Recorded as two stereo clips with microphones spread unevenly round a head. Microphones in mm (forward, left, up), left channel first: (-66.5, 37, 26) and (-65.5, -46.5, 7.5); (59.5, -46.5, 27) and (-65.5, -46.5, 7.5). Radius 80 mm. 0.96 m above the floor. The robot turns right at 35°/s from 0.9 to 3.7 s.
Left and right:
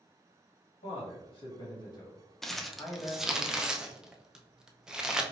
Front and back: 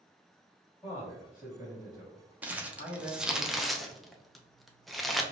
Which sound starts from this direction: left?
A man speaking, at 0.8 s.